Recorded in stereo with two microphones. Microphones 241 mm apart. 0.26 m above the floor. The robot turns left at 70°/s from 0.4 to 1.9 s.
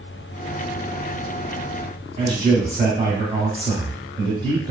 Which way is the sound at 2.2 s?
25° right (ahead or behind).